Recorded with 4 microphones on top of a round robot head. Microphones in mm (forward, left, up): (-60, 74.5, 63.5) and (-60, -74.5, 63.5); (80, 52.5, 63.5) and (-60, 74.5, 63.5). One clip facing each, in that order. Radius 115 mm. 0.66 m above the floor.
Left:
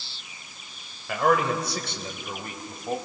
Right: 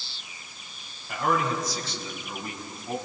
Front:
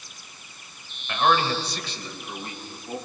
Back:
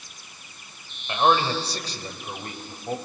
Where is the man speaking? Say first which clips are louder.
Left 4 dB, back 1 dB; 105° left, 3.5 m; by 3.0 s 135° left, 4.5 m.